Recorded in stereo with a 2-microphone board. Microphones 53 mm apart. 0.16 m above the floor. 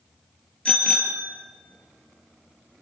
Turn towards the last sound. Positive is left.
turn(degrees=20)  # may be behind; listen again after turning